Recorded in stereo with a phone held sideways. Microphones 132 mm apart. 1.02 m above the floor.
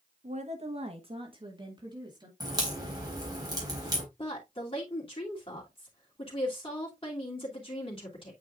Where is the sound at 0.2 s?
60° right (ahead or behind), 1.0 m; by 2.3 s 30° right (ahead or behind), 2.5 m.